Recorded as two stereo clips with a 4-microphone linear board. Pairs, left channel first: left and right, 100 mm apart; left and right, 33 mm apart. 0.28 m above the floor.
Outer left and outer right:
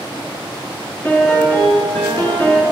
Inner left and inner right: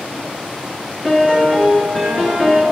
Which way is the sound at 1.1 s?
25° left (ahead or behind).